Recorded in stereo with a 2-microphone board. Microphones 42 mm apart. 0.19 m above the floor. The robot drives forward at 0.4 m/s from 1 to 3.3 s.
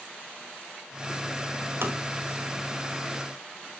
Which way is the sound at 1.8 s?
60° right (ahead or behind).